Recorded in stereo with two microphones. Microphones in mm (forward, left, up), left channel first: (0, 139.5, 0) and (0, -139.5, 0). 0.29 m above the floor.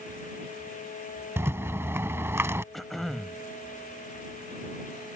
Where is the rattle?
10° right (ahead or behind).